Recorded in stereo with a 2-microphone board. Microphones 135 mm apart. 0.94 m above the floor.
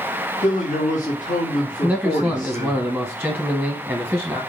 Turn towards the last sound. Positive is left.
turn(degrees=-5)  # may be behind; listen again after turning